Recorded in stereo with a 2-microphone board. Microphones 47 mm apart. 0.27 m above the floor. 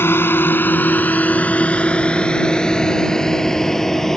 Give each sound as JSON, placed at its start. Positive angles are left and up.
{"t": 0.0, "sound": "a drone", "side_deg": 55}